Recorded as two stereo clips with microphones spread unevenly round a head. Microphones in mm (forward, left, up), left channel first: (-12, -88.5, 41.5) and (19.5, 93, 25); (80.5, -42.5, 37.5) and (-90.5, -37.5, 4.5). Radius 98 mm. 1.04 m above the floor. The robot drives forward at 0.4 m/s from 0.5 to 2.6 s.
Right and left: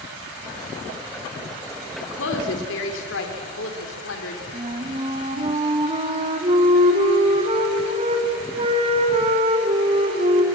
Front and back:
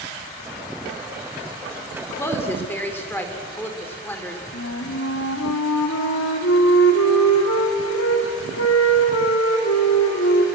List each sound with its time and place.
2.0 s a woman speaking: 75° right, 3 m; by 4.4 s 80° right, 2.5 m
4.5 s a flute: 20° left, 2.5 m